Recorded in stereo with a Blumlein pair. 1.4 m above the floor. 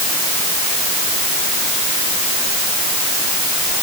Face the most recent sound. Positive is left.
No sound to turn to.